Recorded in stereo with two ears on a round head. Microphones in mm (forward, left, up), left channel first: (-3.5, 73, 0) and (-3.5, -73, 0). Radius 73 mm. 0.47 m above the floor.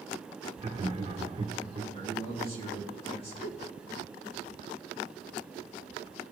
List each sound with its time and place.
0.6 s laughter: 35° right (ahead or behind), 1.0 m
1.9 s a man speaking: 40° left (ahead or behind), 3 m
3.4 s a giggle: 60° left (ahead or behind), 0.9 m